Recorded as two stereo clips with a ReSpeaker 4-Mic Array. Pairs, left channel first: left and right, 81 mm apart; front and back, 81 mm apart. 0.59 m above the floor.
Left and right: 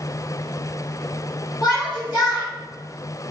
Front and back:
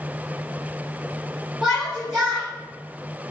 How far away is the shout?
About 2 m.